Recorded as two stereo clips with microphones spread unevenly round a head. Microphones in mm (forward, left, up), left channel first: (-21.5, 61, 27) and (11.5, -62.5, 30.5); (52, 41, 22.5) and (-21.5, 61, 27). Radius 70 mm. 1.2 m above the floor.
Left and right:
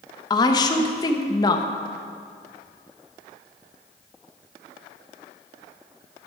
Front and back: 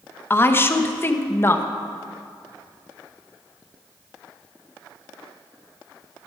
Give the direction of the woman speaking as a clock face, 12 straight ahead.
11 o'clock.